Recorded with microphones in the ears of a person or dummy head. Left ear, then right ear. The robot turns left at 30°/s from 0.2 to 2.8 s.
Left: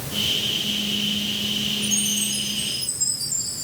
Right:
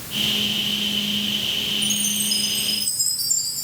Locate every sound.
1.8 s a chime: 40° right (ahead or behind), 5 m; by 3.6 s 70° right (ahead or behind), 5 m